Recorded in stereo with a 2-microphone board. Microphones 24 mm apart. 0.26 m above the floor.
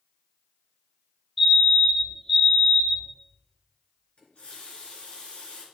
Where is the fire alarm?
10° left (ahead or behind), 3 m.